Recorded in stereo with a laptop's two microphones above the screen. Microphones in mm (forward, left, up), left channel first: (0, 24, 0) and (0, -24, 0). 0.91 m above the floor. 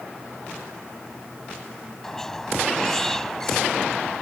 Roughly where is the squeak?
Centre.